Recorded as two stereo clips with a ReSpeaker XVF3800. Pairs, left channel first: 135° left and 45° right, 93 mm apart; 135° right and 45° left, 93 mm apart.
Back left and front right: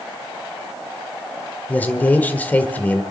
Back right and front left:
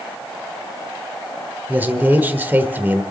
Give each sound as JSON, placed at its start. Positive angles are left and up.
{"t": 1.7, "sound": "a man speaking", "azimuth_deg": 85, "distance_m": 1.3}